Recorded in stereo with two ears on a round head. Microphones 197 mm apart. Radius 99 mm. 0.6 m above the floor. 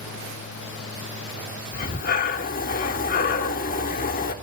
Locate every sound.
1.7 s breathing: 40° left (ahead or behind), 1.1 m